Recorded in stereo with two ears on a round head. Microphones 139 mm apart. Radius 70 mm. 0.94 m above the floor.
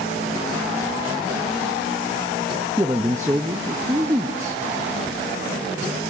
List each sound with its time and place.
2.8 s a man speaking: 15° right (ahead or behind), 0.8 m